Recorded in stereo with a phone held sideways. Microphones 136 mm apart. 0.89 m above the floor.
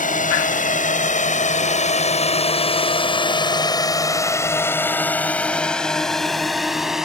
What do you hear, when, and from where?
0.0 s a drone: 75° left (ahead or behind); by 7.0 s 5° right (ahead or behind)